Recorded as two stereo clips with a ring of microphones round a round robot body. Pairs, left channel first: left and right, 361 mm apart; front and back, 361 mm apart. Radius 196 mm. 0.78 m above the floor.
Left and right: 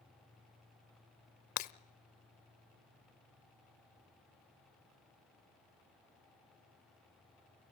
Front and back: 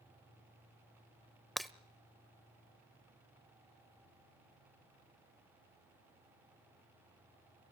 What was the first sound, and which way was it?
Breaking glass, 90° left.